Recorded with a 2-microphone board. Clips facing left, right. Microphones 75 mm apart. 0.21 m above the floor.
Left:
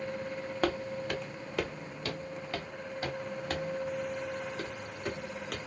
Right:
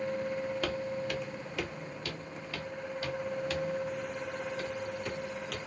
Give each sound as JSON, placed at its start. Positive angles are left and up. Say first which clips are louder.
{"t": 0.6, "sound": "footsteps", "louder": "left 2 dB", "side_deg": 45, "distance_m": 1.1}